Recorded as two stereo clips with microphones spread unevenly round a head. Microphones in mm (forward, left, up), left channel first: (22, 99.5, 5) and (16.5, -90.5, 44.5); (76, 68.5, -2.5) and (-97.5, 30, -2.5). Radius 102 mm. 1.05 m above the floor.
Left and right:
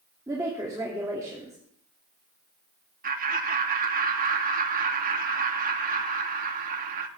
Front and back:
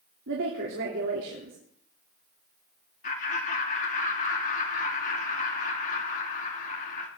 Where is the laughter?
45° right, 2.5 m.